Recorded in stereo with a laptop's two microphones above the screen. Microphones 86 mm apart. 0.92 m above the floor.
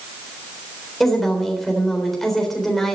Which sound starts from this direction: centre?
A woman speaking, at 1.0 s.